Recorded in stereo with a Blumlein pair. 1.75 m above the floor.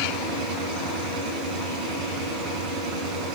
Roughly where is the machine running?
Ahead right.